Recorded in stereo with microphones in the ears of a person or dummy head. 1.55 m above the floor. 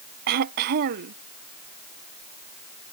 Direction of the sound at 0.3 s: 45° right (ahead or behind).